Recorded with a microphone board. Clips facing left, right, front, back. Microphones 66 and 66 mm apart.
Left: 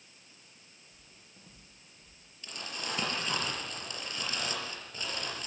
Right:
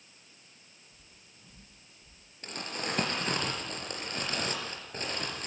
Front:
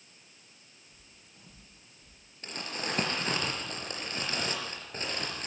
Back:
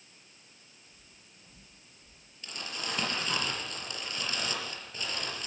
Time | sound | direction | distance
0.9 | footsteps | 30° left | 10 m
2.4 | crumpling | 50° right | 5 m